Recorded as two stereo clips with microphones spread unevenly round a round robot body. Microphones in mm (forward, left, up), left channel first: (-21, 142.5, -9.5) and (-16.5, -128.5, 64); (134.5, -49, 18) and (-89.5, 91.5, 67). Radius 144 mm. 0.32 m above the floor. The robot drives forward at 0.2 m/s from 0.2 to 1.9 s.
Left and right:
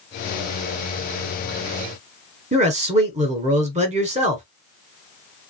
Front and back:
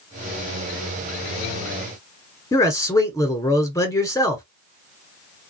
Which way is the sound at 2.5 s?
20° right.